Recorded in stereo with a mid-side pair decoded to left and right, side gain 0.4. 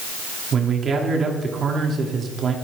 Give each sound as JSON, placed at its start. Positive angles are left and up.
{"t": 0.5, "sound": "a man speaking", "azimuth_deg": -55, "distance_m": 3.0}